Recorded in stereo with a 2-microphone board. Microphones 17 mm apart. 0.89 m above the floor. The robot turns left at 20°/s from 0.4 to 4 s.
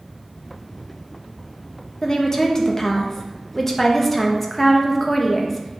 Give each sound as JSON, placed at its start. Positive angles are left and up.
{"t": 2.0, "sound": "a woman speaking", "azimuth_deg": 50, "distance_m": 1.0}